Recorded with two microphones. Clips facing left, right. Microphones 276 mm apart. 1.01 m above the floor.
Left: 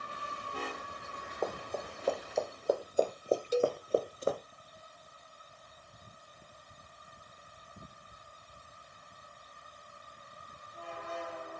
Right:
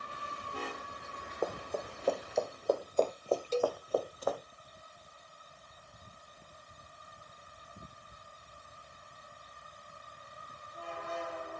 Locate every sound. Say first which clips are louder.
1.4 s running footsteps: right 1 dB; 5° right (ahead or behind), 3.5 m; by 4.4 s 30° left (ahead or behind), 1.5 m
3.5 s a cowbell: left 3 dB; 15° left (ahead or behind), 0.8 m